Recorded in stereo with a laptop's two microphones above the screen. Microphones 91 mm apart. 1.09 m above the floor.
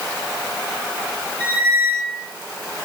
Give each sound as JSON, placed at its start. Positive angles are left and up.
{"t": 1.4, "sound": "a squeak", "side_deg": 20, "distance_m": 2.5}